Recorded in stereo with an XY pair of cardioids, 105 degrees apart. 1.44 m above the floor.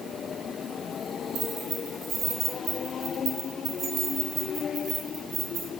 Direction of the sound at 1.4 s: 70° right.